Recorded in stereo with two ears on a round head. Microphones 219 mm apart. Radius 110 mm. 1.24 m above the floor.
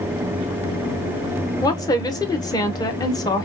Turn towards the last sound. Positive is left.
turn(degrees=15)  # may be behind; listen again after turning